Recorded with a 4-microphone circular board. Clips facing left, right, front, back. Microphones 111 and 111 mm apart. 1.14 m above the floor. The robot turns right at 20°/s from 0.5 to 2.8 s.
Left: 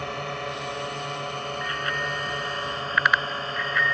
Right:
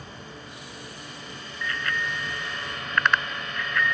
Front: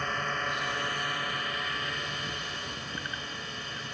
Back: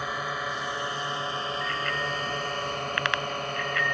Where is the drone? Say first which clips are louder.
Left 11 dB, back 1 dB; 100° left; by 3.9 s 145° left.